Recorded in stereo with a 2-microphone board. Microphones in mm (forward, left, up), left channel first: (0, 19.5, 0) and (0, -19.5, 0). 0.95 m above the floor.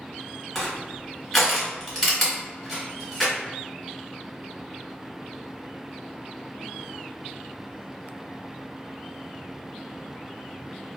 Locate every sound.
0.6 s crushing: 5° left (ahead or behind), 1.3 m